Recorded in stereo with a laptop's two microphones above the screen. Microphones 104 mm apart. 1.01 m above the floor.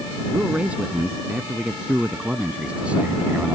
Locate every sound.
0.3 s a man speaking: 10° right (ahead or behind)